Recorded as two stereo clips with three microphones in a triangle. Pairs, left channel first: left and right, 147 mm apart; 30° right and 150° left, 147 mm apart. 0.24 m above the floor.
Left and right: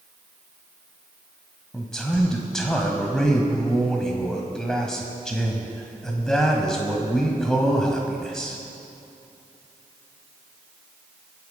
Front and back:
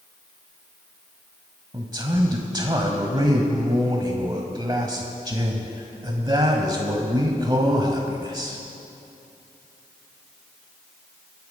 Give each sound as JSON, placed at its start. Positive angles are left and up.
{"t": 1.7, "sound": "a man speaking", "azimuth_deg": 175, "distance_m": 1.2}